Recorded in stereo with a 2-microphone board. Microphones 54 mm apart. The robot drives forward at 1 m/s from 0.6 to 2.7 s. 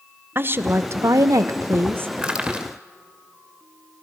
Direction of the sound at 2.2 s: 20° right (ahead or behind).